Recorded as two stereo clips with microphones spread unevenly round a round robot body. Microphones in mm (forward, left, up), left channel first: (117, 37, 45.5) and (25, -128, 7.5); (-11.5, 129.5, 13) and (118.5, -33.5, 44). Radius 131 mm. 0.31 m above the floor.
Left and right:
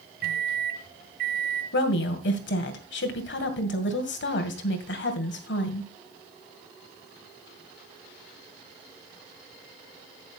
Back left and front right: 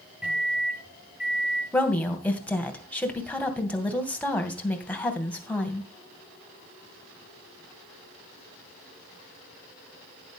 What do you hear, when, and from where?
0.2 s a microwave: 140° right, 1.7 m
1.7 s a woman speaking: 50° left, 2.5 m